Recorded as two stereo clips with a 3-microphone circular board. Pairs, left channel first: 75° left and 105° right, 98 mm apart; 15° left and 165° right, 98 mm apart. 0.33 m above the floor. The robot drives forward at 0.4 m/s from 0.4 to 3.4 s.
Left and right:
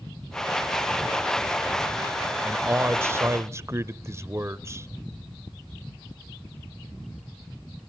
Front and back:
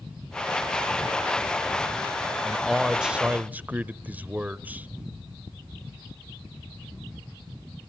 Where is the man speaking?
65° right, 0.9 m; by 4.9 s 110° right, 0.9 m.